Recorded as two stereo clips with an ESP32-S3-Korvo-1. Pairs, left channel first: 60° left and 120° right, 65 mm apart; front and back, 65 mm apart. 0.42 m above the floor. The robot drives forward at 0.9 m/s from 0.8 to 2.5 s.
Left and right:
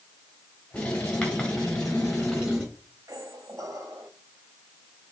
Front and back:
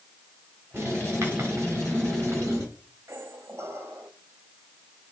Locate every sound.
0.7 s writing: 140° left, 3.5 m; by 2.6 s 150° left, 5 m
3.1 s a squeak: 140° right, 0.7 m